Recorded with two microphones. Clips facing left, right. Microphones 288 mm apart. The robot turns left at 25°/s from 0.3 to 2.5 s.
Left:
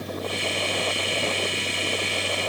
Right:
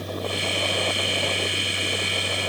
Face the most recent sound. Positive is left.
No sound to turn to.